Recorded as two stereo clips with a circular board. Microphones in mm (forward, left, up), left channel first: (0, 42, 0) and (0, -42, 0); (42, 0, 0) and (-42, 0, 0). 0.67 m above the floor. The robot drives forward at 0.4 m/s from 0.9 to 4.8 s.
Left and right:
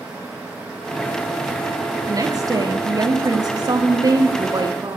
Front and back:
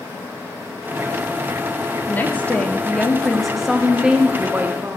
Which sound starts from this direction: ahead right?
A woman speaking, at 2.1 s.